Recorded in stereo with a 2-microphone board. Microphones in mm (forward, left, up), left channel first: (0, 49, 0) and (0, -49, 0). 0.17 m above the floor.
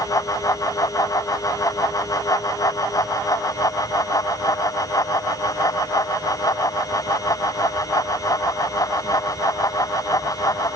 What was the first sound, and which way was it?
Only background noise.